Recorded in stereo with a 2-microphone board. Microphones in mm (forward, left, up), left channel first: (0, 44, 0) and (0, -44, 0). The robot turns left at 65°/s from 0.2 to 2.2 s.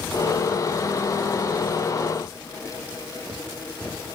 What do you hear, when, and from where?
Only background noise.